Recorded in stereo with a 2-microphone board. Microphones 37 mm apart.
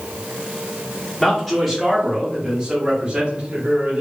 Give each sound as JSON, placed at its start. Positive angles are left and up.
{"t": 1.2, "sound": "a man speaking", "side_deg": 5, "distance_m": 1.8}